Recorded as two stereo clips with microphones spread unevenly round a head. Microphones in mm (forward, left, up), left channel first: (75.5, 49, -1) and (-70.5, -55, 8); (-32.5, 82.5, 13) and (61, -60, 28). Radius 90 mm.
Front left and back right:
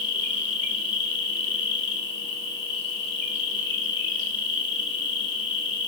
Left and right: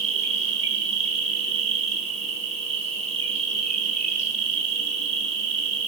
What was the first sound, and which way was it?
An insect, 5° left.